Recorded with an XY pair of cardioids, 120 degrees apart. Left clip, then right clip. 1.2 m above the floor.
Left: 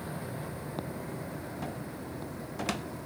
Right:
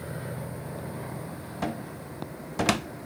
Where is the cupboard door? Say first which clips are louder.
Right 5 dB; 50° right, 0.7 m.